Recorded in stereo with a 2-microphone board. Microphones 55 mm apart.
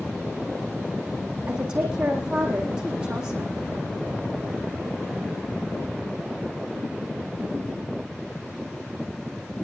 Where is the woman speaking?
15° right (ahead or behind), 6 m.